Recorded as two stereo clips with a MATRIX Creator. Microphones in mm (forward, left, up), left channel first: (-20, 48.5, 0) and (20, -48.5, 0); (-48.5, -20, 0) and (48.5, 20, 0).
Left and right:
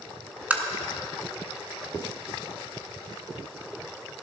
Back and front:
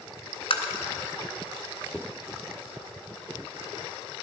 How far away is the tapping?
About 1.4 m.